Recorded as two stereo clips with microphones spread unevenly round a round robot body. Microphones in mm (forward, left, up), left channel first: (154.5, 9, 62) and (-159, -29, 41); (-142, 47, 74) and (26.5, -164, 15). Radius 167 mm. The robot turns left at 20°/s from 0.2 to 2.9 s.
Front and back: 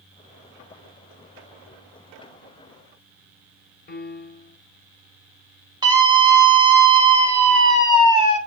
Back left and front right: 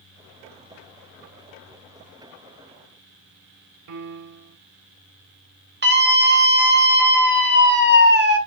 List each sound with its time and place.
3.9 s a piano: 55° right, 1.0 m
5.8 s a scream: 95° right, 4 m